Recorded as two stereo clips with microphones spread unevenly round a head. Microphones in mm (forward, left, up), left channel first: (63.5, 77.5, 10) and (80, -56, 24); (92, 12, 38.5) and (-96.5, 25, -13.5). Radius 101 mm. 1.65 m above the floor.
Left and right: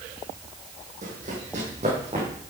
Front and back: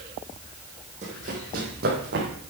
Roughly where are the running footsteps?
Behind right.